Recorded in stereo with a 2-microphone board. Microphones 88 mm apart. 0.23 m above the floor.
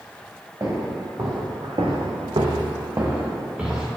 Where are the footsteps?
35° right (ahead or behind), 1.7 m; by 3.9 s 10° right (ahead or behind), 1.5 m.